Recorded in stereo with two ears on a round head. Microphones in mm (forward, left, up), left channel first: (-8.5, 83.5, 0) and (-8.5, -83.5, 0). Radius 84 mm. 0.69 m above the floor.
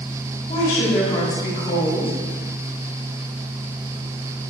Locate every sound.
0.5 s a woman speaking: 35° left (ahead or behind), 2.5 m